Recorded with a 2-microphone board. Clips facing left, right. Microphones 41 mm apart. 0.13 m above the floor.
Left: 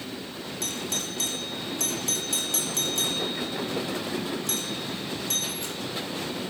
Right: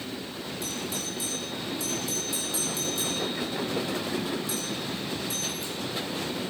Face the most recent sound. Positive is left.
turn(degrees=60)  # may be behind; listen again after turning